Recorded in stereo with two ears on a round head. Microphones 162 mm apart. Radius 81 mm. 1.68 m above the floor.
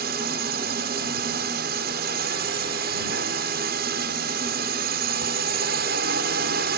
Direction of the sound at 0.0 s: 55° right (ahead or behind).